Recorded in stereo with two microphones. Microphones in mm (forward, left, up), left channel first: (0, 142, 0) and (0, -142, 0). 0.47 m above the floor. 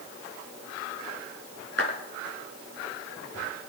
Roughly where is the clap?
Right.